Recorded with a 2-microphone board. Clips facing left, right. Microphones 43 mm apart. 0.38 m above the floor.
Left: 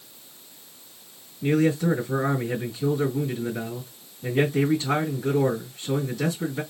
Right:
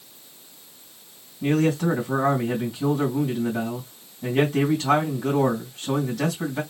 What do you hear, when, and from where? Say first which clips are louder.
1.4 s a man speaking: even; 70° right (ahead or behind), 3 m